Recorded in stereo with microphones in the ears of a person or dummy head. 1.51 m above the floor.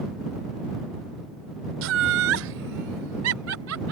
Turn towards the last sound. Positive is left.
turn(degrees=-80)